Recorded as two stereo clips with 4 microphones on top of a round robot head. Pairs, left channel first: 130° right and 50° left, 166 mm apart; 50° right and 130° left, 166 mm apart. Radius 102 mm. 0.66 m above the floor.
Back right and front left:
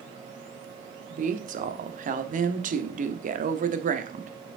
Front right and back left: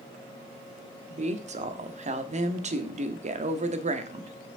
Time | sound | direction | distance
1.1 | a woman speaking | 85° left | 1.4 m